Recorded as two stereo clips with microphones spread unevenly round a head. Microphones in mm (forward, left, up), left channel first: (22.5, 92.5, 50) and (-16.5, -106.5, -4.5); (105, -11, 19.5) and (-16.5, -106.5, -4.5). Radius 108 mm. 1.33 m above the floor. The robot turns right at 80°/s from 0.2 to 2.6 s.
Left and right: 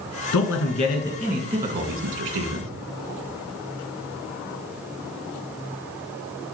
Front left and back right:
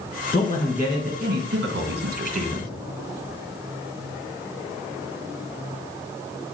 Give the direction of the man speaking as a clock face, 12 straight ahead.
9 o'clock.